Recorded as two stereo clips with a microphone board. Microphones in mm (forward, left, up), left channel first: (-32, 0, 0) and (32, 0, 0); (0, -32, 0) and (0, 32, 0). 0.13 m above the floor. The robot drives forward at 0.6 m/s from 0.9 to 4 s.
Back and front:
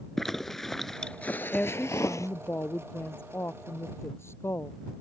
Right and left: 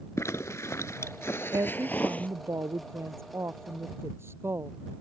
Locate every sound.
0.2 s a zipper: 95° right; by 2.3 s 155° right
1.5 s a woman speaking: 110° left; by 5.0 s 135° left